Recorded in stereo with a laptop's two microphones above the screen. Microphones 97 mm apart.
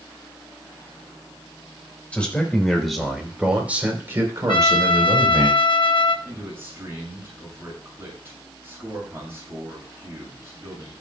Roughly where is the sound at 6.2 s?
Right.